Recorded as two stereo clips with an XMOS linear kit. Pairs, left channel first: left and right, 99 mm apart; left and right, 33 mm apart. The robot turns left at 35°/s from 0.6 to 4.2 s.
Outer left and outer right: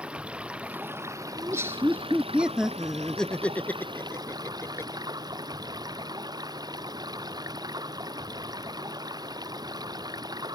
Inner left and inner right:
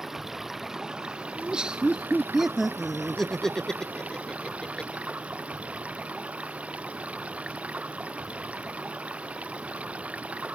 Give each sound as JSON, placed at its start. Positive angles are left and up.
{"t": 0.0, "sound": "running water", "azimuth_deg": -10}
{"t": 1.4, "sound": "laughter", "side_deg": -30}